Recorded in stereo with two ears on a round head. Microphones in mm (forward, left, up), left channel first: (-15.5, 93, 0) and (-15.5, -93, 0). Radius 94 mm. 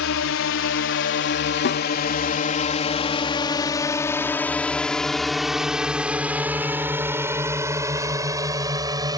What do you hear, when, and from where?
0.0 s a drone: 70° left (ahead or behind); by 9.2 s 20° right (ahead or behind)
1.6 s a snare drum: 55° left (ahead or behind)